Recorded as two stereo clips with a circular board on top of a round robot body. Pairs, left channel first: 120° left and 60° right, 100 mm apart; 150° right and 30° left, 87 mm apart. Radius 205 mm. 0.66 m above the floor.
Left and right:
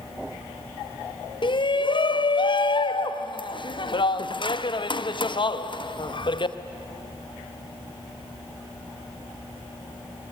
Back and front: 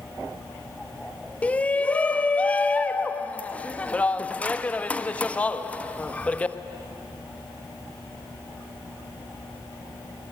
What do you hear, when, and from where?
1.4 s a shout: 140° left, 1.5 m